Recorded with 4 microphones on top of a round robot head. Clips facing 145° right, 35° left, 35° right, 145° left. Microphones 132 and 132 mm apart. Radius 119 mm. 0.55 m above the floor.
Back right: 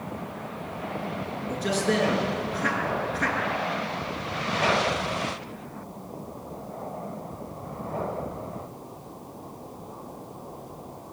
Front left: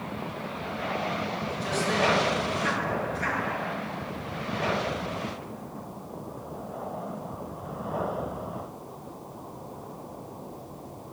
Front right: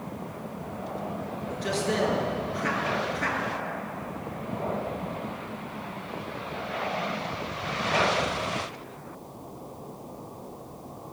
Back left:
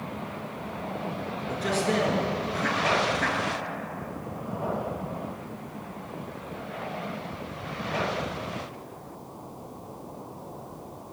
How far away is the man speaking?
About 8.5 m.